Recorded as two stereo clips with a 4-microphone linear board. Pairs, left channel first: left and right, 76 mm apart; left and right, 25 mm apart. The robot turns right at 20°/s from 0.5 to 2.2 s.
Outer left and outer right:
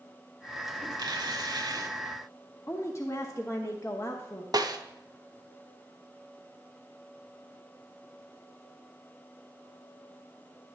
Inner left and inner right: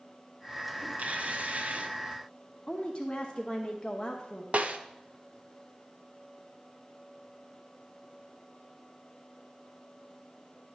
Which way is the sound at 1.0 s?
70° right (ahead or behind).